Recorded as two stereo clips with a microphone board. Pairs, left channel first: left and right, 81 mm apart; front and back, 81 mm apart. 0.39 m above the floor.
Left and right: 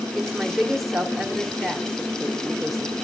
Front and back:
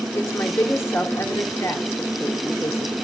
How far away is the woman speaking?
About 1.1 m.